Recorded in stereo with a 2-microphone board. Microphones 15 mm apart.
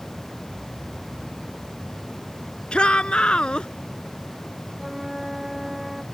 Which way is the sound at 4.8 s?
5° right (ahead or behind).